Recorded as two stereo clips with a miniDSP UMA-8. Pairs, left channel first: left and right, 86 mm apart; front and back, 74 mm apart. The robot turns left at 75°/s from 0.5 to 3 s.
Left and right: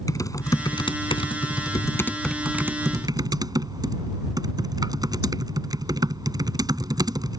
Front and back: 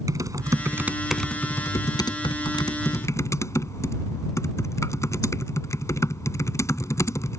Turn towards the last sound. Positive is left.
turn(degrees=-50)